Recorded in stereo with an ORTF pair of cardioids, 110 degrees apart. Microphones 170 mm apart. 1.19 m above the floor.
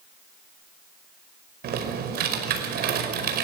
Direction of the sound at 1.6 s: 65° right.